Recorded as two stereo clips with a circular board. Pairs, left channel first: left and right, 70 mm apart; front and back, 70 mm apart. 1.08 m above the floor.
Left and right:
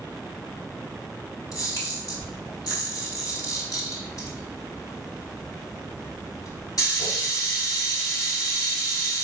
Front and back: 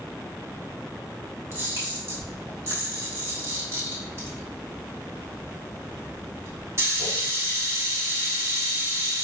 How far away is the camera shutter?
About 1.3 m.